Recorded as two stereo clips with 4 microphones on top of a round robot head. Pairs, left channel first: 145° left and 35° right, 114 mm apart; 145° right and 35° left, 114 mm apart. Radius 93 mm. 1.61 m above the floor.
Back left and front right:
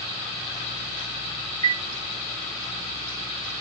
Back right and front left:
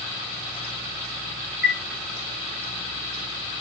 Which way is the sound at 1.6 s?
160° right.